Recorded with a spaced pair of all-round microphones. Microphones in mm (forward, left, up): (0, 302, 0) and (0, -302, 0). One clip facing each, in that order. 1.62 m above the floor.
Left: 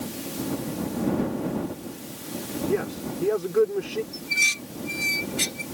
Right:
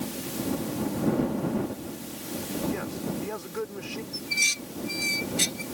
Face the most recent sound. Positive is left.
turn(degrees=85)